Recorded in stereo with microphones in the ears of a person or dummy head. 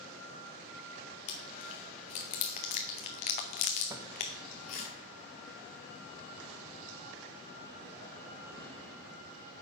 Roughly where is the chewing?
Left.